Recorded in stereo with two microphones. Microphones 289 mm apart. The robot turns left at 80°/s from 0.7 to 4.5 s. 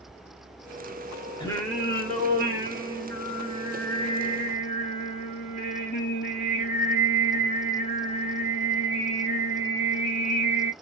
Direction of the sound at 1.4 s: 25° left.